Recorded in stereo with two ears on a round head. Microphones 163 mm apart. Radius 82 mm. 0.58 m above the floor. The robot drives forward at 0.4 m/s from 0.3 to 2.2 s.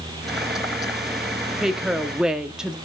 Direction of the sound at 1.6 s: 5° right (ahead or behind).